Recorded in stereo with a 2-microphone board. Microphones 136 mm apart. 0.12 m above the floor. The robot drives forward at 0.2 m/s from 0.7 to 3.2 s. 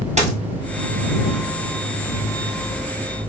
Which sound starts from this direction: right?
A dropped coin, at 0.2 s.